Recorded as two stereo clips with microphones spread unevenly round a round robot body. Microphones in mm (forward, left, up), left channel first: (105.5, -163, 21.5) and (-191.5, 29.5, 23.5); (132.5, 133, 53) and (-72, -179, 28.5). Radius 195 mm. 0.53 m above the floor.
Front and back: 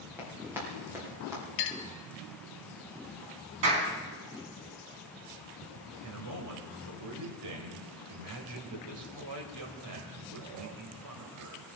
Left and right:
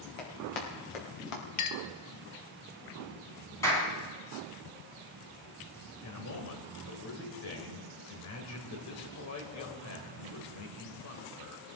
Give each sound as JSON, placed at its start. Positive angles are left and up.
{"t": 0.2, "sound": "running footsteps", "azimuth_deg": 60, "distance_m": 6.0}
{"t": 1.6, "sound": "a clink", "azimuth_deg": 10, "distance_m": 1.3}
{"t": 3.6, "sound": "a clap", "azimuth_deg": 140, "distance_m": 5.0}
{"t": 6.0, "sound": "a man speaking", "azimuth_deg": 105, "distance_m": 2.5}